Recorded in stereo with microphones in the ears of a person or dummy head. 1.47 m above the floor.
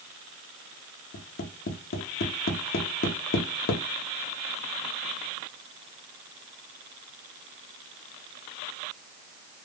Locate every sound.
1.1 s tapping: 50° left (ahead or behind), 0.6 m